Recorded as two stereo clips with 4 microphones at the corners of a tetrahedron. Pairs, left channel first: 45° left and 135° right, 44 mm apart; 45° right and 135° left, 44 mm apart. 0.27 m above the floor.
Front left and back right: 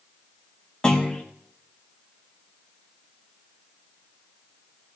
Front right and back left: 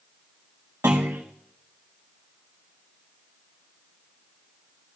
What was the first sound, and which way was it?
A clunk, 120° left.